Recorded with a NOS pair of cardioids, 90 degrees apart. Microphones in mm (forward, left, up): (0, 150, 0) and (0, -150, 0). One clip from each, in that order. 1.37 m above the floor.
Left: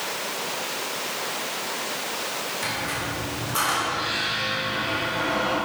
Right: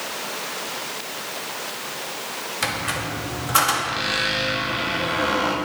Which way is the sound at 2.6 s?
65° right.